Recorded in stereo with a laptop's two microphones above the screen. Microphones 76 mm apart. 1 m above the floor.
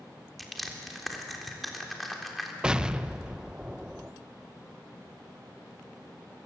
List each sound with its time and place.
0.4 s crushing: centre (ahead or behind), 3.5 m
2.6 s an explosion: 10° right (ahead or behind), 0.6 m